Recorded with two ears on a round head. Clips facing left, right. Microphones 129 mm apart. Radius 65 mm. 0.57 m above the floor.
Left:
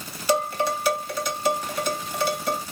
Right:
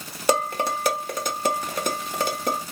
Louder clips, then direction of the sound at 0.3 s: Even; 40° right (ahead or behind).